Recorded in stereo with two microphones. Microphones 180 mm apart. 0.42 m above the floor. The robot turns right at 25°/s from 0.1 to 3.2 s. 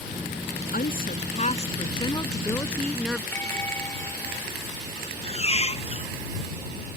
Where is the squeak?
35° left (ahead or behind).